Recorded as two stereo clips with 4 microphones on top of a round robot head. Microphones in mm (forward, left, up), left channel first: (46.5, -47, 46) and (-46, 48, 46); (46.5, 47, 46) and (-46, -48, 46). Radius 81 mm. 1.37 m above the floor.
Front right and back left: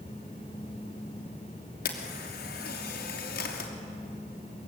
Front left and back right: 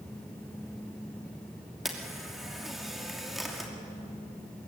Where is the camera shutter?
45° right, 2.5 m.